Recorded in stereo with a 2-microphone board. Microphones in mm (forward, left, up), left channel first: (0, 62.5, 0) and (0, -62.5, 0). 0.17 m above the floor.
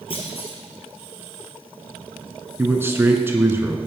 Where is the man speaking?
20° right (ahead or behind), 2 m.